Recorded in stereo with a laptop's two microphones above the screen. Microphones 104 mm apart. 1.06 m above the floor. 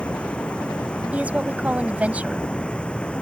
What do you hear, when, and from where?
0.0 s running water: 10° left (ahead or behind)
1.1 s a woman speaking: 15° right (ahead or behind)